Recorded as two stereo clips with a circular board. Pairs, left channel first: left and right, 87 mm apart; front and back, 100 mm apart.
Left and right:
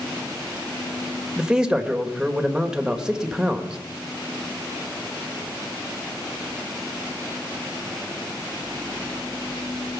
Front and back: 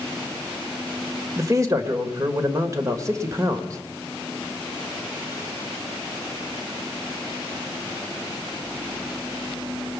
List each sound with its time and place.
1.4 s a man speaking: 165° right, 1.4 m